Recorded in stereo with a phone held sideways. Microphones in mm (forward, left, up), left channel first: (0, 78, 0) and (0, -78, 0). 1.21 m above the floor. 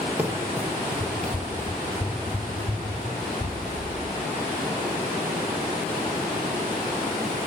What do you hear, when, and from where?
0.2 s running footsteps: 10° right (ahead or behind), 1.3 m; by 3.9 s 20° left (ahead or behind), 3.5 m